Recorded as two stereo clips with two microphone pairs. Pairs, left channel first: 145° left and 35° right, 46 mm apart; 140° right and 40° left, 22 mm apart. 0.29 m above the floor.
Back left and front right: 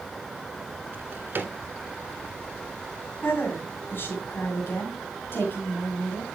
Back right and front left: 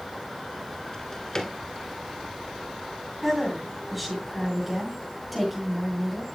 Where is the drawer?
75° right, 1.4 m.